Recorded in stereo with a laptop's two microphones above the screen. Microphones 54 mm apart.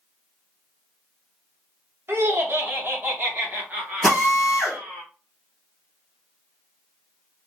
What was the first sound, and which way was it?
Laughter, 50° right (ahead or behind).